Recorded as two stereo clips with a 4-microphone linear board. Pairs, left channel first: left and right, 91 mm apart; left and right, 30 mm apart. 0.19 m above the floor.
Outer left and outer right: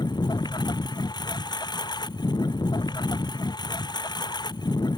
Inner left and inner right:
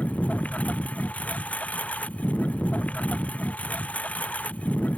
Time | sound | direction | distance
0.0 | a lawn mower | 50° left (ahead or behind) | ?